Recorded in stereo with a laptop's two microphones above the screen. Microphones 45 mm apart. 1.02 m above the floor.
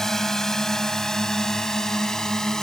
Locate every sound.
0.0 s a drone: 10° left (ahead or behind); by 2.6 s 15° left (ahead or behind)